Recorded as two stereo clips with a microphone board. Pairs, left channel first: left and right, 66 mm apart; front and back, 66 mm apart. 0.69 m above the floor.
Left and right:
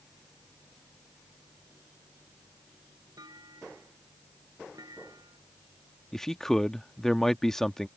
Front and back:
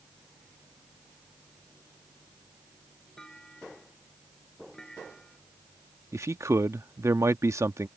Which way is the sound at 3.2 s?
80° right.